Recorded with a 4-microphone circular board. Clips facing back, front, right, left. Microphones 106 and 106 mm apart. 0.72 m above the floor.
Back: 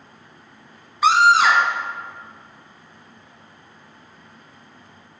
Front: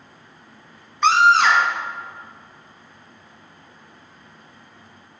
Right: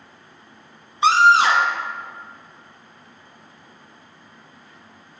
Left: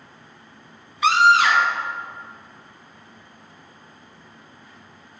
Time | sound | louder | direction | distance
1.0 | a scream | even, right 2 dB | 100° right | 0.7 m